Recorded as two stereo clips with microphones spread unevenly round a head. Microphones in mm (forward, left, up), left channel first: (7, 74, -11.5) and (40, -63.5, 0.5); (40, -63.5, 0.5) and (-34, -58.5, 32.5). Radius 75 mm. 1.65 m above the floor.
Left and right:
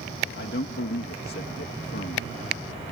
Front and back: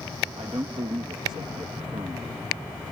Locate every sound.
0.4 s a man speaking: 130° left